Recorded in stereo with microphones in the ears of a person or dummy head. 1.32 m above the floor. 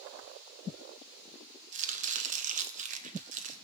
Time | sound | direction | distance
1.7 | chopping | 40° right (ahead or behind) | 0.7 m